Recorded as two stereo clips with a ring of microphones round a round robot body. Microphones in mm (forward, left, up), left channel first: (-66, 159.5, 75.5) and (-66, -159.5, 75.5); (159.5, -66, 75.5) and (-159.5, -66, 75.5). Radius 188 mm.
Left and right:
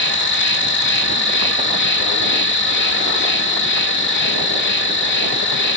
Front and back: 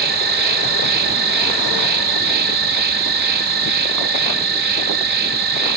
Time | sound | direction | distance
0.0 | an insect | 130° left | 1.8 m